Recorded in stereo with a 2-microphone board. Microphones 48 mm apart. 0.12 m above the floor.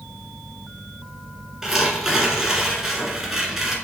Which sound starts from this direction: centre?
Tearing paper, at 1.6 s.